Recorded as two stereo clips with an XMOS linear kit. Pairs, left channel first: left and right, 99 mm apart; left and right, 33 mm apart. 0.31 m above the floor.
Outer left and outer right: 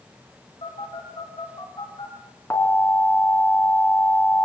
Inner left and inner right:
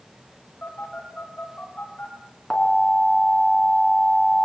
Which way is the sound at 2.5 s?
25° left (ahead or behind).